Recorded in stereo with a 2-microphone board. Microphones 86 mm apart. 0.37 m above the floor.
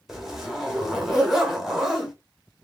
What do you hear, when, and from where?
0.1 s a zipper: 5° right (ahead or behind), 1.6 m